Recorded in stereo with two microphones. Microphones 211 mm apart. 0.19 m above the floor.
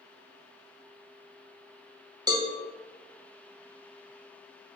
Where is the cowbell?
20° right (ahead or behind), 0.5 m.